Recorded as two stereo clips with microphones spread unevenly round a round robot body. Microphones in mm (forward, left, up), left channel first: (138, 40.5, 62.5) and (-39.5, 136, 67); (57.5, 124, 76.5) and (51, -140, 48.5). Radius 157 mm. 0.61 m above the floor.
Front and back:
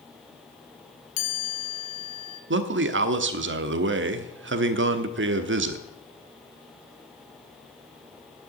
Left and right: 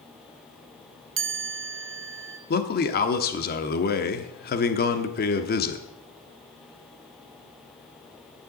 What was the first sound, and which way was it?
A chime, 75° right.